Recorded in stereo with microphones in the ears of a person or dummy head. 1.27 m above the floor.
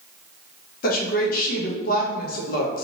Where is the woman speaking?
55° left (ahead or behind), 1.1 m.